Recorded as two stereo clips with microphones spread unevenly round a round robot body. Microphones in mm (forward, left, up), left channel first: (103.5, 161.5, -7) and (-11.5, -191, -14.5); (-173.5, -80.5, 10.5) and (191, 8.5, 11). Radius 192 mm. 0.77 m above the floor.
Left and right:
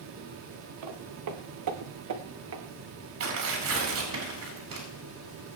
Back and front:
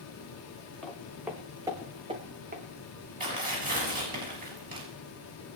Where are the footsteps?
80° right, 3 m; by 2.6 s 55° right, 3 m.